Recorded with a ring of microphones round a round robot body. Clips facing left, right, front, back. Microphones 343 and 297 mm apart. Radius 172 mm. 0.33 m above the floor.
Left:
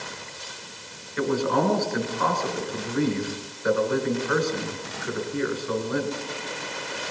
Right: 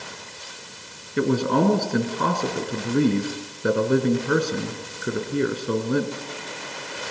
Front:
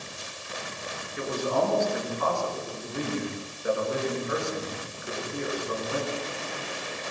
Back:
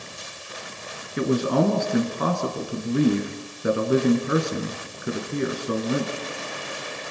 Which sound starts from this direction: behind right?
A man speaking, at 1.2 s.